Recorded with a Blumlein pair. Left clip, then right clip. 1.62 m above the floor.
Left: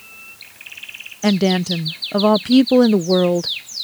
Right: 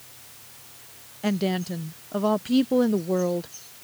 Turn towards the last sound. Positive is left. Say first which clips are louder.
# left 9 dB
turn(degrees=65)